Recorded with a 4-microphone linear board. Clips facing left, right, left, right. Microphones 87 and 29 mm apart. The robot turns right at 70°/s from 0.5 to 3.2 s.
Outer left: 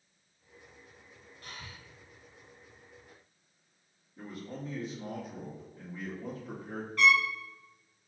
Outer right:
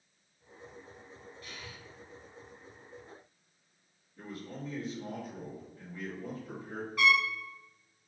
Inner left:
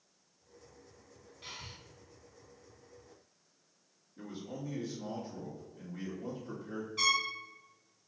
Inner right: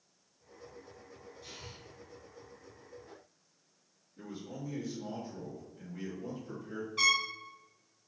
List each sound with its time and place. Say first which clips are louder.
1.4 s breathing: outer left 2 dB, inner left 4 dB; 50° left (ahead or behind), 0.8 m; by 1.8 s 35° left (ahead or behind), 0.8 m
4.2 s a man speaking: outer left 1 dB, inner left 1 dB; 20° left (ahead or behind), 1.4 m
7.0 s a trumpet: outer left 2 dB, inner right 2 dB; 10° right (ahead or behind), 1.8 m